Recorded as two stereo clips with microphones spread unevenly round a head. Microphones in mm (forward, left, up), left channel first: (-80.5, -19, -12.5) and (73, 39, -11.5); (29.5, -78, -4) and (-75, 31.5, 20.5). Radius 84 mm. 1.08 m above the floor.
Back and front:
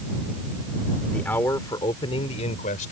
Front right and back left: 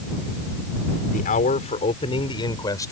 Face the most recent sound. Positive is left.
turn(degrees=-115)